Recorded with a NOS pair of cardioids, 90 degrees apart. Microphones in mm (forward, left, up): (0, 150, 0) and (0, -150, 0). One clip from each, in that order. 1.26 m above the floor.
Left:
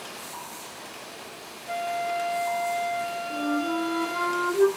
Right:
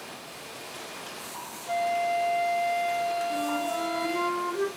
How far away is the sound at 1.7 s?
About 1.8 m.